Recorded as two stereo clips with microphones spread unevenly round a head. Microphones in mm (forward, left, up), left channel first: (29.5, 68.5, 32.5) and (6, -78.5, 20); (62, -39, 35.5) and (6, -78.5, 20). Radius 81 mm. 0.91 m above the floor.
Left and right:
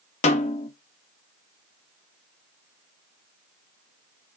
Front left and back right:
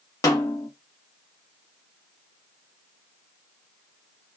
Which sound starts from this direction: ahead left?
A snare drum, at 0.2 s.